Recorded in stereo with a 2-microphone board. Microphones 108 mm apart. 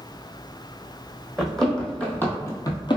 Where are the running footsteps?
Centre (ahead or behind), 1.0 m; by 3.0 s 50° left (ahead or behind), 0.5 m.